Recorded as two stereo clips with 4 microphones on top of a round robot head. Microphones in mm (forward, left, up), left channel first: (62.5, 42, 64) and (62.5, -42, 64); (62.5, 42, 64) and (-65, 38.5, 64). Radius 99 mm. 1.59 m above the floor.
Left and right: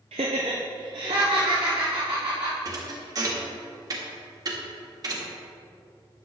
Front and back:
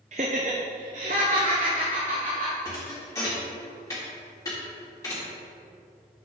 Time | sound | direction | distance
0.1 | laughter | 130° right | 0.6 m
2.6 | a thud | 65° right | 1.4 m